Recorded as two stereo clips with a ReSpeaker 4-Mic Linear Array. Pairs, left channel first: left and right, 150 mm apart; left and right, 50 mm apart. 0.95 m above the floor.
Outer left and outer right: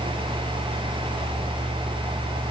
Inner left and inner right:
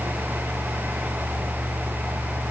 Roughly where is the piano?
I don't hear a piano.